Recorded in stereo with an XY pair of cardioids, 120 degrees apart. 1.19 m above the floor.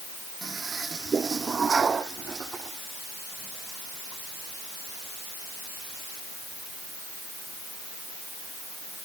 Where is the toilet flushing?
30° right.